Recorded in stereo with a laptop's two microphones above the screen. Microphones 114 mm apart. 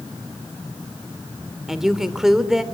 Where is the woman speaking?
5° right (ahead or behind), 2.5 m.